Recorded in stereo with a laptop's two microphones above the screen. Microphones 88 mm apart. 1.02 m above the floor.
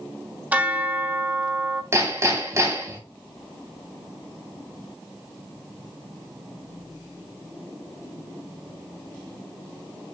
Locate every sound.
0.5 s a bell: 15° right (ahead or behind), 1.5 m
1.9 s hammering: 35° right (ahead or behind), 2.5 m